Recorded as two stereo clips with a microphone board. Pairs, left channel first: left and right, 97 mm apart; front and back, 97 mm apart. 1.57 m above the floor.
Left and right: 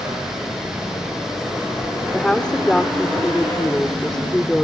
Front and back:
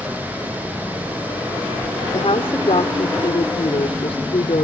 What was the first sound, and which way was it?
A woman speaking, 10° left.